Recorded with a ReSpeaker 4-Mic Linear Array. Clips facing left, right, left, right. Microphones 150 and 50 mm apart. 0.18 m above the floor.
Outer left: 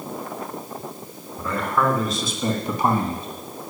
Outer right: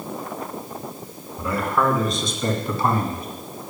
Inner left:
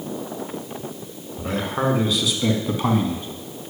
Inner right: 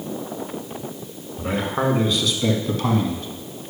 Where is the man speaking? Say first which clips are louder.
Outer right 1 dB, inner right 1 dB; 10° right (ahead or behind), 2.5 m; by 3.3 s 30° left (ahead or behind), 1.7 m.